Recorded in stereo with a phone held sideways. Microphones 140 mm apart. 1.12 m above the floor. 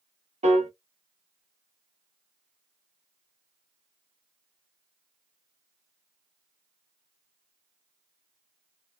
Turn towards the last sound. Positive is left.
turn(degrees=-55)  # may be behind; listen again after turning